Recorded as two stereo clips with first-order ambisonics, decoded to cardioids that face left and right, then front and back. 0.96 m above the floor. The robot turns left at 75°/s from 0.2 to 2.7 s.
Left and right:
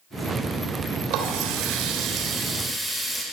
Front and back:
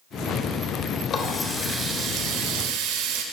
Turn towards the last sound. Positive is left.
turn(degrees=-175)